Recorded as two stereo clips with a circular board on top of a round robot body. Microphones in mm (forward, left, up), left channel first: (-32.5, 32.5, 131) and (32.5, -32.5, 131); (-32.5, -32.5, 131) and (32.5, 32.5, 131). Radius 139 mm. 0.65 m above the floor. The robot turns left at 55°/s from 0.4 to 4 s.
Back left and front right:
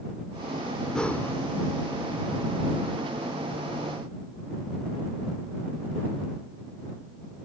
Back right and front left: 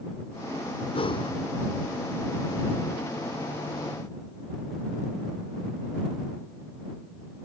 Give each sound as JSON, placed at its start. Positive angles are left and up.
{"t": 0.9, "sound": "breathing", "azimuth_deg": -140}